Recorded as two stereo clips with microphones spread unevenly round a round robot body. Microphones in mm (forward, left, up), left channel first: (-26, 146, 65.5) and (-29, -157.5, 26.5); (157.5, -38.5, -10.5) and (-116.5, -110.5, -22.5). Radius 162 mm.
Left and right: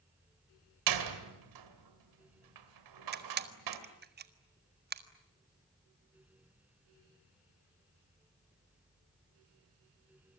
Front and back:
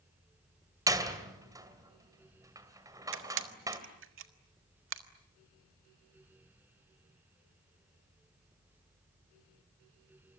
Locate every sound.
0.9 s a door slam: 90° right, 2.5 m
3.1 s a camera shutter: 135° right, 1.5 m